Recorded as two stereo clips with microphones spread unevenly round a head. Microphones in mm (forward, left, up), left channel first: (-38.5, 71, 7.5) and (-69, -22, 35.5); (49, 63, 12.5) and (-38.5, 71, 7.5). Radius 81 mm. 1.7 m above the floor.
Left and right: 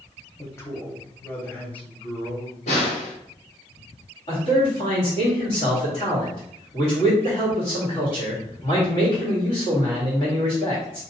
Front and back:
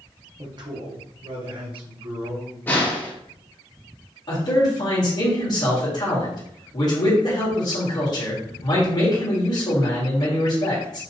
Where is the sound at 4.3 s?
35° left, 1.9 m.